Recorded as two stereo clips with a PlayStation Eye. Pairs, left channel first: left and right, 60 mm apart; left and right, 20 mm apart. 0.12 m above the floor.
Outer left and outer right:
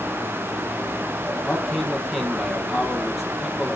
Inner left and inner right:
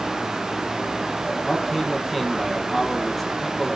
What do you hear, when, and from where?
1.4 s a man speaking: centre (ahead or behind), 3.5 m